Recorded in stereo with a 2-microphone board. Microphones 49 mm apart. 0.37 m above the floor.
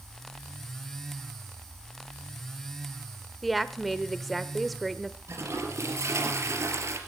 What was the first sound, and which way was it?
A woman speaking, centre (ahead or behind).